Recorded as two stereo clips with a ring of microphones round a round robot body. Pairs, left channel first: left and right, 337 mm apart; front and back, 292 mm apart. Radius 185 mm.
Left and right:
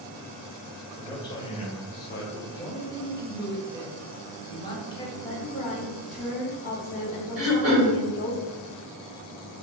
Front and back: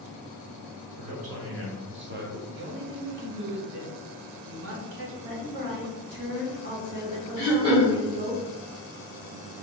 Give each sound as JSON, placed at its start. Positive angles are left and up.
{"t": 1.0, "sound": "a man speaking", "azimuth_deg": 170, "distance_m": 1.4}
{"t": 2.5, "sound": "a man speaking", "azimuth_deg": 165, "distance_m": 1.1}
{"t": 5.2, "sound": "a woman speaking", "azimuth_deg": 145, "distance_m": 1.2}
{"t": 7.4, "sound": "throat clearing", "azimuth_deg": -115, "distance_m": 1.8}